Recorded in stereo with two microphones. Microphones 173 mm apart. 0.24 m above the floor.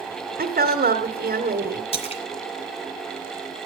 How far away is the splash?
About 2 m.